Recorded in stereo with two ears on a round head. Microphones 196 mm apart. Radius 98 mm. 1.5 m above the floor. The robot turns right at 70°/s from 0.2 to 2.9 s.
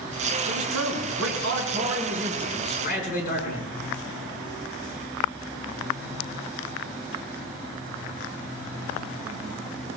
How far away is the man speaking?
About 5.5 m.